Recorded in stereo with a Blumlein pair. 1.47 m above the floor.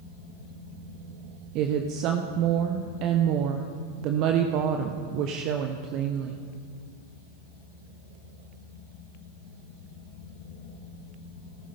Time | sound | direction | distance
1.6 | a woman speaking | 40° right | 0.8 m